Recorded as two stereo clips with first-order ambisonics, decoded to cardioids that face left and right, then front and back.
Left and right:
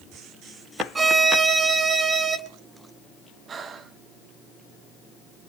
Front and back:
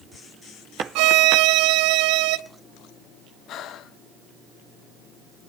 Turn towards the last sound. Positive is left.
turn(degrees=-35)